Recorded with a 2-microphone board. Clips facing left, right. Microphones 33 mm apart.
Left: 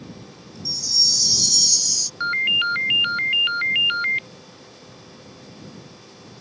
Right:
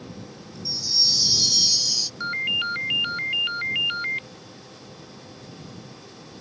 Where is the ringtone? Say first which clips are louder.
Left 6 dB; 25° left (ahead or behind).